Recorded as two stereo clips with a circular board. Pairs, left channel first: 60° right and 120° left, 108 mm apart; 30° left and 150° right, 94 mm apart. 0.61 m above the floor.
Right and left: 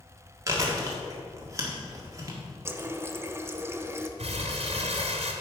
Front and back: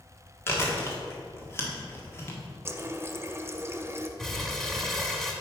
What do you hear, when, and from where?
0.5 s chewing: 80° left, 1.5 m
2.6 s a running tap: 170° left, 0.5 m
4.2 s crumpling: 115° left, 1.2 m